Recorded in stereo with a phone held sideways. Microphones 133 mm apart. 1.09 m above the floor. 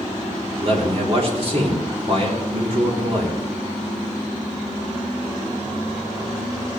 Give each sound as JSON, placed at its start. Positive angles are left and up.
{"t": 0.6, "sound": "a man speaking", "side_deg": -50, "distance_m": 3.0}